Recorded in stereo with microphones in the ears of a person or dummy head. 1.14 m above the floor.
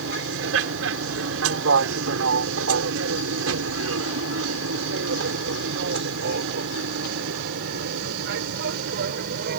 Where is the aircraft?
65° right (ahead or behind); by 9.6 s 55° right (ahead or behind).